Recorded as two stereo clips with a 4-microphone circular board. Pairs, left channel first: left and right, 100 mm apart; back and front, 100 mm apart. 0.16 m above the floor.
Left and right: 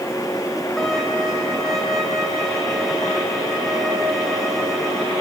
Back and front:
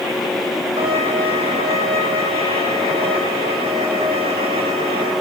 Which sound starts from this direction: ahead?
A violin, at 0.8 s.